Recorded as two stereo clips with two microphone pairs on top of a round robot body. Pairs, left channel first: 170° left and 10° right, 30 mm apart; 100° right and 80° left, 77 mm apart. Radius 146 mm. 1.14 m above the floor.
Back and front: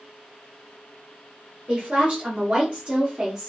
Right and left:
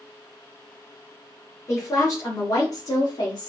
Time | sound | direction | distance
1.7 | a woman speaking | 45° right | 1.9 m